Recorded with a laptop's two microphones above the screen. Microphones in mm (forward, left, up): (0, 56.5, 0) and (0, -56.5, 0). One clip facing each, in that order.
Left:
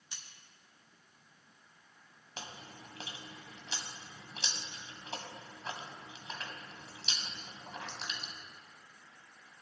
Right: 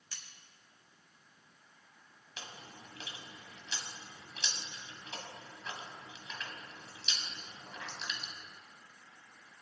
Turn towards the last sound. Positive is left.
turn(degrees=40)  # may be behind; listen again after turning